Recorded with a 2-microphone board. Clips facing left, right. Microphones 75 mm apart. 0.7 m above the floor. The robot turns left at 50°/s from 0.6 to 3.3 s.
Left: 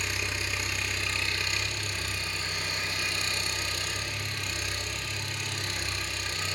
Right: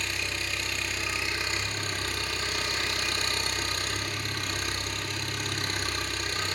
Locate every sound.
0.0 s an engine running: 10° left, 2 m; by 6.6 s 125° right, 2 m